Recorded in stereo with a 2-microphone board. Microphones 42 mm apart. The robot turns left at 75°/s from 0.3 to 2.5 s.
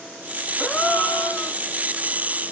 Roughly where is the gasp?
Behind left.